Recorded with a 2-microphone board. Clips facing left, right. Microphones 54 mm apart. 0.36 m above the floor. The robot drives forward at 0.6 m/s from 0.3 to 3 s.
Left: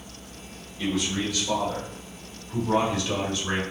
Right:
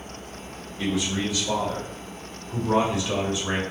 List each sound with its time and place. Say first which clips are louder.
0.8 s a man speaking: right 1 dB; 20° right (ahead or behind), 1.1 m